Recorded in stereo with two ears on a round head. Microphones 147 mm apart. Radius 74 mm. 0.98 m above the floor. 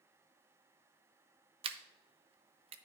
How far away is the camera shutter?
About 0.6 m.